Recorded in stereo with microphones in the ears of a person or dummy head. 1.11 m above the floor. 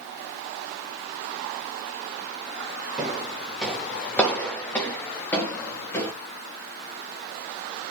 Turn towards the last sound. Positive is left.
turn(degrees=20)  # may be behind; listen again after turning